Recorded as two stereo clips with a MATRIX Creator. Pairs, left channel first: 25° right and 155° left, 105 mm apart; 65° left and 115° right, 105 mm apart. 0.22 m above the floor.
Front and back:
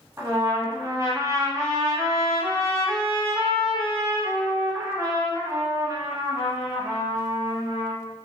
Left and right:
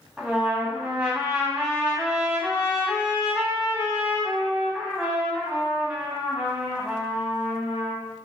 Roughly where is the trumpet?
Behind.